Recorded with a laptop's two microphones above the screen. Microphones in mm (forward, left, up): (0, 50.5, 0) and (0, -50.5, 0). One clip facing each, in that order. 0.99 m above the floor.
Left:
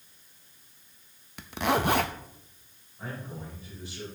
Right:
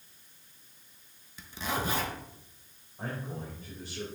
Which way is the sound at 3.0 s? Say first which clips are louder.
Right 1 dB; 45° right (ahead or behind).